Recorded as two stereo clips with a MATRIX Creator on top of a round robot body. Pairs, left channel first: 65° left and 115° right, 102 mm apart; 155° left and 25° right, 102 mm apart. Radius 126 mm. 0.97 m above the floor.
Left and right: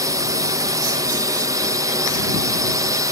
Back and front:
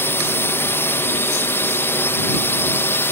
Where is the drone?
145° right.